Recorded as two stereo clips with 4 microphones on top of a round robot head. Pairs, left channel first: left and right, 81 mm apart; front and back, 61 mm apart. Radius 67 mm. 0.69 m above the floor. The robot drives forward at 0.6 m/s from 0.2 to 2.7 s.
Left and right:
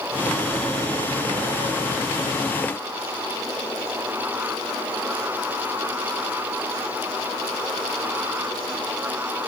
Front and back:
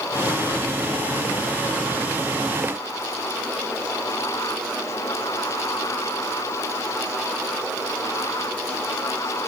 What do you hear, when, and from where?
Only background noise.